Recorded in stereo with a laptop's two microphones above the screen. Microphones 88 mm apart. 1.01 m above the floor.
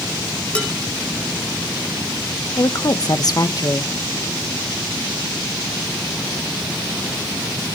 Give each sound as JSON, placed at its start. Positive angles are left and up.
{"t": 0.6, "sound": "dishes clattering", "side_deg": 15, "distance_m": 3.5}
{"t": 2.6, "sound": "a woman speaking", "side_deg": 50, "distance_m": 1.1}